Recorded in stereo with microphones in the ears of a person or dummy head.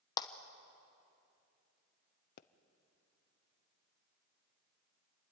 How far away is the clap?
About 1.0 m.